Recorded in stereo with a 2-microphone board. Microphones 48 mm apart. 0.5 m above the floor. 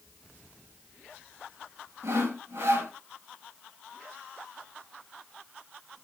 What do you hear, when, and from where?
2.0 s sawing: 70° right (ahead or behind), 1.1 m